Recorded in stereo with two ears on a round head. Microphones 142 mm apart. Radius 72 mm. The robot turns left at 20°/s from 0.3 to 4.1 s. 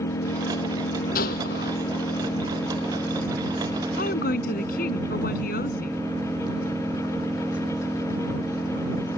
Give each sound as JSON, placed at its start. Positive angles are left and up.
{"t": 0.0, "sound": "an engine running", "azimuth_deg": 65}
{"t": 1.1, "sound": "a gunshot", "side_deg": 65}
{"t": 4.0, "sound": "a woman speaking", "side_deg": 65}